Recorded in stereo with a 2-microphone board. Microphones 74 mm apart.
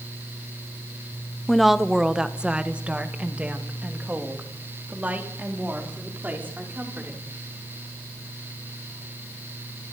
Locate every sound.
1.5 s a woman speaking: 5° left (ahead or behind), 0.9 m; by 7.3 s 25° right (ahead or behind), 5.5 m